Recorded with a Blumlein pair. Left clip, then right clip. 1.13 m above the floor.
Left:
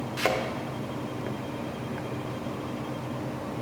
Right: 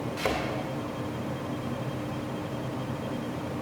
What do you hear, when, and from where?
0.2 s a thud: 20° left, 1.3 m